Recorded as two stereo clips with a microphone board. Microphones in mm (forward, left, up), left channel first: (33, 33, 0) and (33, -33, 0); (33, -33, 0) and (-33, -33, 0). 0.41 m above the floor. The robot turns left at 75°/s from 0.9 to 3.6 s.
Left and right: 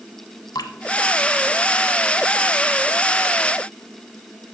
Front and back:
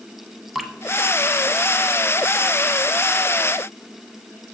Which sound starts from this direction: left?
Dripping, at 0.6 s.